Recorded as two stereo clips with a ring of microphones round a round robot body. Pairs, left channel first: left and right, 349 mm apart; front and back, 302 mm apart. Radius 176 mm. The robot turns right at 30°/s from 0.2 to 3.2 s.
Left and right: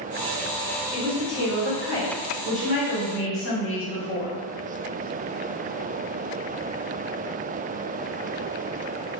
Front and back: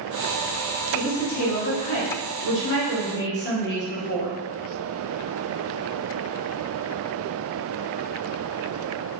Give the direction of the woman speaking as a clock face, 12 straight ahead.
1 o'clock.